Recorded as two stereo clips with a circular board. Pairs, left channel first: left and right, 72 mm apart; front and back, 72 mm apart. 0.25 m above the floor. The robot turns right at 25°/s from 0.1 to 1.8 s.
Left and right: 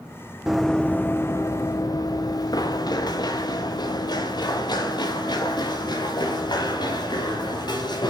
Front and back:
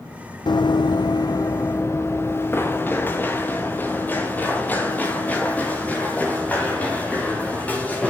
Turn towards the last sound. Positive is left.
turn(degrees=70)